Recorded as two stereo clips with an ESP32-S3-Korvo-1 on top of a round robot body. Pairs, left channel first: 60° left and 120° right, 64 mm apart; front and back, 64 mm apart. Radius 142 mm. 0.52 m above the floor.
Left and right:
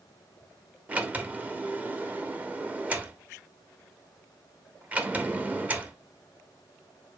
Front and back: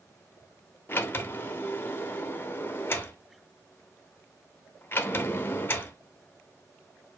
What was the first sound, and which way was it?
A sliding door, 55° right.